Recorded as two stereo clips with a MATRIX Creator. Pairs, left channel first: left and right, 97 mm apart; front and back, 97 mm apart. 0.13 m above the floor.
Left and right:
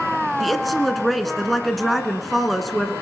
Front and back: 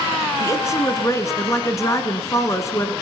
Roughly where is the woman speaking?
Ahead.